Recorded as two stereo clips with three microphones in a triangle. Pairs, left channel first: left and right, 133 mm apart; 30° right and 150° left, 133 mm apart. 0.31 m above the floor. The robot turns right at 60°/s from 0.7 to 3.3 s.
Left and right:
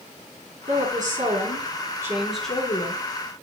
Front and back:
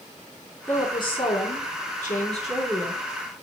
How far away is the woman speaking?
About 3.5 m.